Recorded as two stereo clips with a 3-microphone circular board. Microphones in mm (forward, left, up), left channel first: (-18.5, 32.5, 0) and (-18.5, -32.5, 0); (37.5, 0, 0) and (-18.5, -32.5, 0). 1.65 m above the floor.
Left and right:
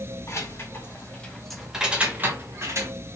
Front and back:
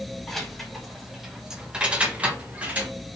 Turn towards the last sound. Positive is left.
turn(degrees=-90)